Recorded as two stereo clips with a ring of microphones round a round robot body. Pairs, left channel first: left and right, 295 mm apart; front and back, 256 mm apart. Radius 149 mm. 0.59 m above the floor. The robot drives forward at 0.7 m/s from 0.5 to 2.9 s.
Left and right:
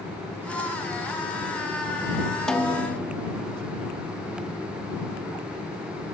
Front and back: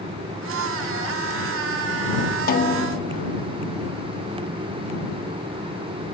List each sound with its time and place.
2.5 s a snare drum: 5° left, 1.1 m